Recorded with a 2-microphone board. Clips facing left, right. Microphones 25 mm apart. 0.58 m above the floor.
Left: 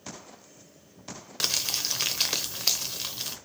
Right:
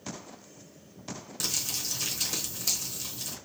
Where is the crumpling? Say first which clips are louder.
Left 5 dB; 60° left (ahead or behind), 0.8 m.